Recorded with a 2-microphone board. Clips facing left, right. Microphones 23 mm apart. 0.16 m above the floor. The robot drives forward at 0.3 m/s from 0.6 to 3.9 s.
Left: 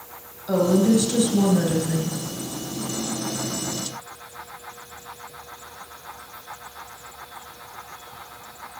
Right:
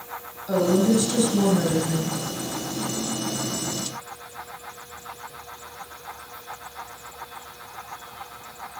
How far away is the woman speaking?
About 2.5 m.